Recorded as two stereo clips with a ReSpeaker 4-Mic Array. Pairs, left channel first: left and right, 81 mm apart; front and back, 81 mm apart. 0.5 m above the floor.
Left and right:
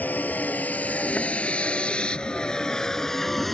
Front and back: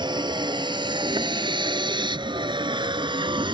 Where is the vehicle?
160° left; by 3.5 s straight behind.